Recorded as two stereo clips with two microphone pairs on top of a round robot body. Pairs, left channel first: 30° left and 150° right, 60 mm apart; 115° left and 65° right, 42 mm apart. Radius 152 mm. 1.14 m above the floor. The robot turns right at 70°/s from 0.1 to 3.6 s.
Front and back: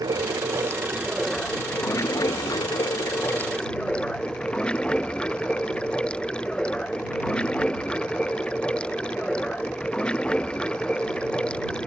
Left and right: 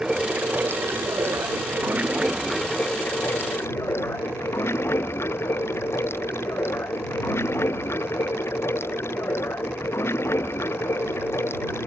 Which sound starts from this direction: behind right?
Running water, at 0.0 s.